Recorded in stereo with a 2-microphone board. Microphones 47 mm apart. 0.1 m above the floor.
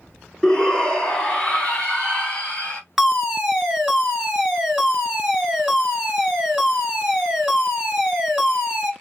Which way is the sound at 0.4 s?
10° left (ahead or behind).